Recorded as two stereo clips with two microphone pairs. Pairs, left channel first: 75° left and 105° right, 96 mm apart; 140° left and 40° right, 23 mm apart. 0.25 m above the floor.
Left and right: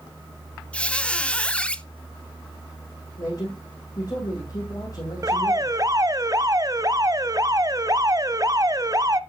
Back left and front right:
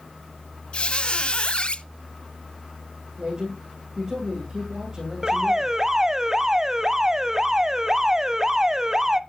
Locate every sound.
0.7 s a squeak: 145° left, 0.7 m
3.2 s a man speaking: 20° left, 10 m
5.2 s an alarm: 95° right, 0.7 m